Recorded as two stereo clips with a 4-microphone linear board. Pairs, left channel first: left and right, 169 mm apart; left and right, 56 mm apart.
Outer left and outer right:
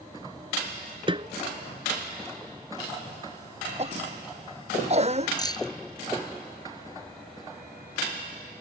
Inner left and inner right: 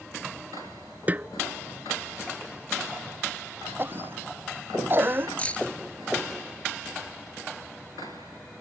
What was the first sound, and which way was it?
A snare drum, 30° right (ahead or behind).